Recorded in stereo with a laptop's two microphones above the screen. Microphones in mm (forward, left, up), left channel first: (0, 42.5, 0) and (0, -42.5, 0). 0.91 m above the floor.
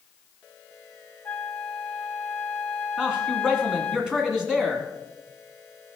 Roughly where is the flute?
Left.